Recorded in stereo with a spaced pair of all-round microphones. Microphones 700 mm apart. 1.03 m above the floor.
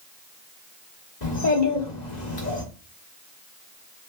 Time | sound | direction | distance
1.2 | a child speaking | 65° left (ahead or behind) | 1.4 m